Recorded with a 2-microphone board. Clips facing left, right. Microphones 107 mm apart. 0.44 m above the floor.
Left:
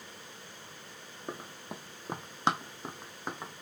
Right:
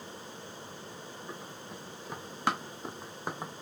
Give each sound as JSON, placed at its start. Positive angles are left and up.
{"t": 1.3, "sound": "running footsteps", "side_deg": 65, "distance_m": 1.2}